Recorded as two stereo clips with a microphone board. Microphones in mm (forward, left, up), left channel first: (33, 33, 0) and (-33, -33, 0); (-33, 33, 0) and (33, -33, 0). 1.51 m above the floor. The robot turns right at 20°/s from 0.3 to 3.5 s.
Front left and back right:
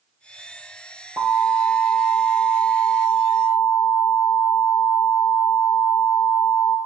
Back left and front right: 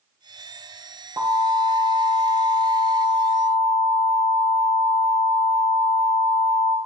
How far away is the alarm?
About 2 m.